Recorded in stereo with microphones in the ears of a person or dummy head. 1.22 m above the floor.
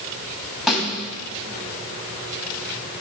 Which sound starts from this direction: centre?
A snare drum, at 0.7 s.